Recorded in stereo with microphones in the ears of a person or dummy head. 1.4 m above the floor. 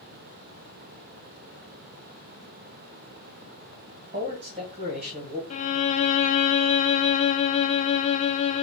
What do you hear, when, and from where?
4.1 s a man speaking: 40° right (ahead or behind), 1.8 m
5.5 s a violin: 35° left (ahead or behind), 0.5 m